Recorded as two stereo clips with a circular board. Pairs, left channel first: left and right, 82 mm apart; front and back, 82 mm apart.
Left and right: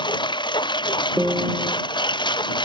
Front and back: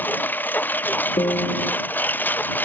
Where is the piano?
10° right.